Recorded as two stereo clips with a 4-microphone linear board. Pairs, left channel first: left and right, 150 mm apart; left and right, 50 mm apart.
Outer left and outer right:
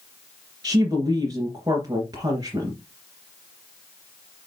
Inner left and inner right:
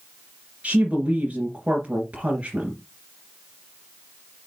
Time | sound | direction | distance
0.6 | a woman speaking | 25° right (ahead or behind) | 3 m